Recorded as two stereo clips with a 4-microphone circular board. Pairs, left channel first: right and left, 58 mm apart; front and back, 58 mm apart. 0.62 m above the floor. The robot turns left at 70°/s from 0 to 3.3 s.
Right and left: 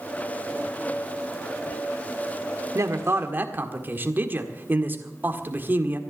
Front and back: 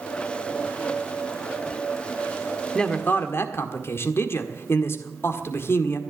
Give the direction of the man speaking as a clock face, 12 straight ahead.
9 o'clock.